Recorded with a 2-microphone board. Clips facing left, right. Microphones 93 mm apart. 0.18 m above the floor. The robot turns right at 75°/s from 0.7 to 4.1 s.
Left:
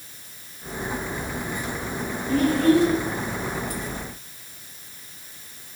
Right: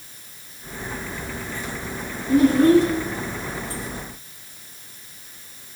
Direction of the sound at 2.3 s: 160° right.